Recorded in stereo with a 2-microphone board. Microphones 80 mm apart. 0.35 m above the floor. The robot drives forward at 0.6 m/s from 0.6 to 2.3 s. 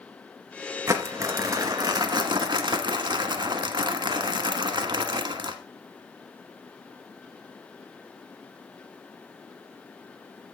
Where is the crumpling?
35° right (ahead or behind), 1.7 m; by 5.5 s 65° right (ahead or behind), 1.1 m.